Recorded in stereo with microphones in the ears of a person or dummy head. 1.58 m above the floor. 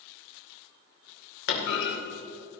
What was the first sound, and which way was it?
A clunk, 60° left (ahead or behind).